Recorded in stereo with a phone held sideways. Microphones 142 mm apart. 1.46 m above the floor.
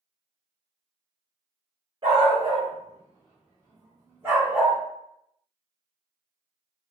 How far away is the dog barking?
About 1.1 m.